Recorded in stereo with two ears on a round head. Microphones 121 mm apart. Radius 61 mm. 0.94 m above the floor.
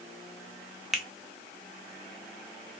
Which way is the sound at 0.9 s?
Centre (ahead or behind).